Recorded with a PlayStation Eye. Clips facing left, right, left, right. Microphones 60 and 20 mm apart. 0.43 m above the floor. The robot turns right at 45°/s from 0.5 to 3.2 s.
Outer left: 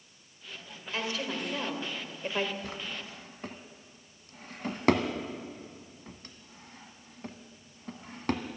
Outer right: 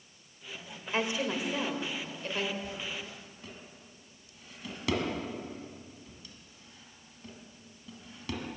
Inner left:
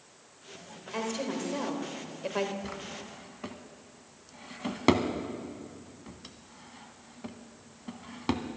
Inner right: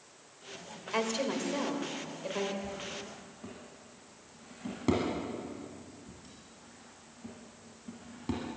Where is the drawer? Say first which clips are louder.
Even, even; 75° left (ahead or behind), 1.3 m; by 8.6 s 50° left (ahead or behind), 1.3 m.